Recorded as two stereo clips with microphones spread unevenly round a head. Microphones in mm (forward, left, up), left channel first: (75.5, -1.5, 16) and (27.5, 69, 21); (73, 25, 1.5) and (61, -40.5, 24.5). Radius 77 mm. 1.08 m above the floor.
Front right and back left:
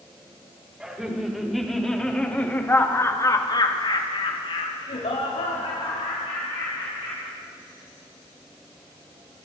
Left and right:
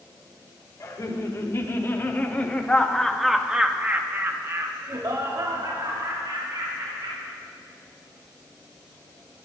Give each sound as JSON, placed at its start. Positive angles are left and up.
{"t": 0.8, "sound": "laughter", "azimuth_deg": 45, "distance_m": 3.5}